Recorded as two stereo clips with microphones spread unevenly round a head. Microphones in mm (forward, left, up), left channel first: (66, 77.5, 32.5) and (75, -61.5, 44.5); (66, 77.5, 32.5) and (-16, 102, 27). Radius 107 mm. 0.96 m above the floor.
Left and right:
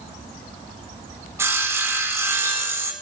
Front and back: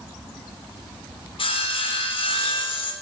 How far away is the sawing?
About 3.5 m.